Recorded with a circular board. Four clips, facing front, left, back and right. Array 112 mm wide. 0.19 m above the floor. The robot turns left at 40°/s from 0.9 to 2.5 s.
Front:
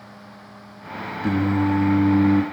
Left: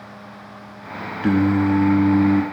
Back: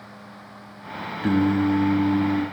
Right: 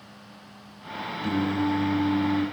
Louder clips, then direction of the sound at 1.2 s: Left 8 dB, back 1 dB; 105° left.